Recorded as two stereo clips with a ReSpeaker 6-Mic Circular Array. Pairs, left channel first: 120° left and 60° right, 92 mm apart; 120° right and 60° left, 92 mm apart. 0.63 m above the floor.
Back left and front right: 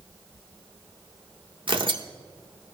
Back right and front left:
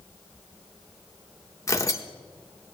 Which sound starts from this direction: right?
Tearing paper, at 1.7 s.